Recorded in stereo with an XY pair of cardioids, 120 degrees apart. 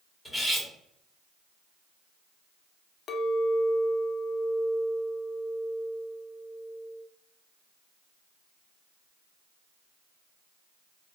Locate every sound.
0.2 s cutlery clinking: 10° left, 1.1 m
3.1 s a clink: 50° left, 0.6 m